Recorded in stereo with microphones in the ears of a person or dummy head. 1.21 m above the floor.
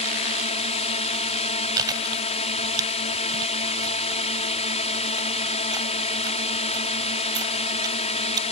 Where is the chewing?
25° right (ahead or behind).